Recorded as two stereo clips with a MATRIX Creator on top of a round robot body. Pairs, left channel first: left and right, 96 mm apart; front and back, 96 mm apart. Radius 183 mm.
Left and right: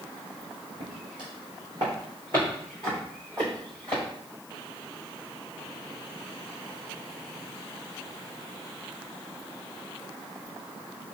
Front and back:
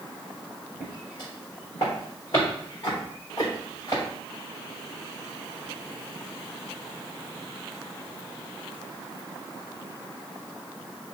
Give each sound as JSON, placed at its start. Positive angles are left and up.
{"t": 0.8, "sound": "footsteps", "azimuth_deg": -55, "distance_m": 1.6}